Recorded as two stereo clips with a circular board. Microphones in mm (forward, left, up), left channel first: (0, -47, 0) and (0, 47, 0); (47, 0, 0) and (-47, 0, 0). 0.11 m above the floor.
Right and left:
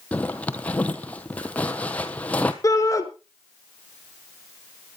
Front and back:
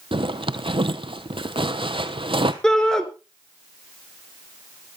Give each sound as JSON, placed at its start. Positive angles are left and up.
{"t": 0.1, "sound": "a zipper", "azimuth_deg": -165, "distance_m": 1.2}
{"t": 2.6, "sound": "a shout", "azimuth_deg": -80, "distance_m": 1.5}